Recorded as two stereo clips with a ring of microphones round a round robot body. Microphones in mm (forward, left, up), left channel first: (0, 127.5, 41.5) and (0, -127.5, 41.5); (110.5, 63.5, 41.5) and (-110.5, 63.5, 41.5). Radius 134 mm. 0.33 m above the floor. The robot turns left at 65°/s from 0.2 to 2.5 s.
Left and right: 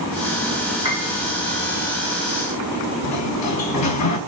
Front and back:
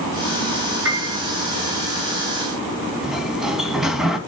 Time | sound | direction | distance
0.8 | a piano | 160° right | 5 m
3.0 | a sliding door | 90° left | 2.5 m